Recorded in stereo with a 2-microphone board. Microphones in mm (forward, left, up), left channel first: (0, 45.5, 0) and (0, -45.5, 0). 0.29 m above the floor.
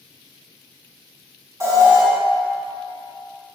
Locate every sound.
1.6 s an alarm: 35° right (ahead or behind), 3.5 m